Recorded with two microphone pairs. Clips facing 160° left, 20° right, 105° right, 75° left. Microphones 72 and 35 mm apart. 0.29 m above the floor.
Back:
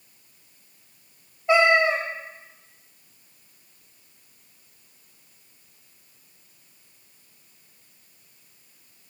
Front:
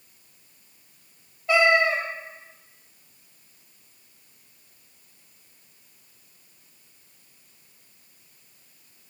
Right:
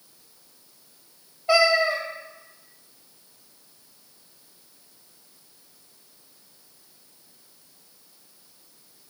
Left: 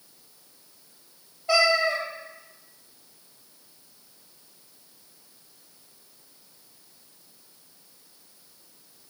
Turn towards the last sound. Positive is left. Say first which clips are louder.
# back 1 dB, right 2 dB
turn(degrees=-165)